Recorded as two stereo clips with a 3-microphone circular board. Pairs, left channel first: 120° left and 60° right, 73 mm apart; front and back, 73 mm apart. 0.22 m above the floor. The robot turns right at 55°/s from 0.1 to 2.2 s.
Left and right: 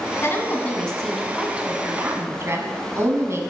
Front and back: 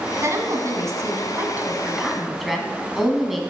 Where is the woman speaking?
155° left, 1.5 m; by 3.4 s 95° right, 1.5 m.